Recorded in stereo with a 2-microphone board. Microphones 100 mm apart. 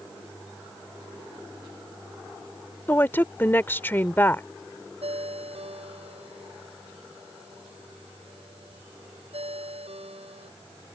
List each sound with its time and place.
2.9 s a woman speaking: 20° left (ahead or behind)
5.0 s a ringtone: 80° right